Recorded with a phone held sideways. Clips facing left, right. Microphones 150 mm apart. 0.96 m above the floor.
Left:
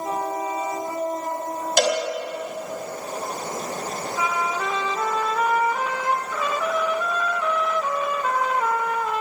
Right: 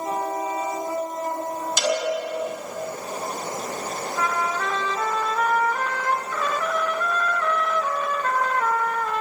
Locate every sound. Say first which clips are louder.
1.8 s a cowbell: left 3 dB; 60° left (ahead or behind), 4.5 m
4.2 s a trumpet: even; 10° left (ahead or behind), 0.6 m